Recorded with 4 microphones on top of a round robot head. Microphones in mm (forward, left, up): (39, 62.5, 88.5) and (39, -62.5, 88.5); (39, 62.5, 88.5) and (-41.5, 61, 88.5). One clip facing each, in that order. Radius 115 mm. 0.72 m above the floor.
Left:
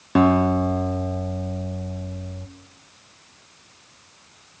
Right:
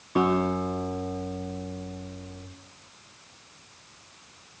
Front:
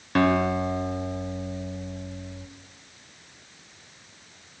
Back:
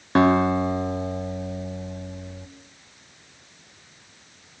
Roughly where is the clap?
No clap in this recording.